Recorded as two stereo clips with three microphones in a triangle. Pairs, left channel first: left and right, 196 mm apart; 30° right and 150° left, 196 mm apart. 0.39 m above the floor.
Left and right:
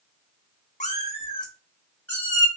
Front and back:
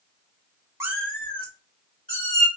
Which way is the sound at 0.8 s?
85° left.